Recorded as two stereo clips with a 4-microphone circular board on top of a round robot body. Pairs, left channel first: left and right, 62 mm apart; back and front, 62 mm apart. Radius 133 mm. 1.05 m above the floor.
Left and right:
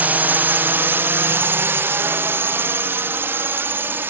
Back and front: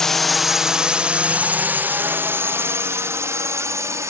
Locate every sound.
0.0 s a drone: 105° right; by 4.1 s 35° right